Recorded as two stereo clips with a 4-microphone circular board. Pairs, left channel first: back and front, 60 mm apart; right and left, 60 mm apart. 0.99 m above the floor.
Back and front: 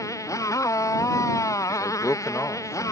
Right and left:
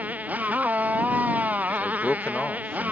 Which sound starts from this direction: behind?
A man speaking, at 1.7 s.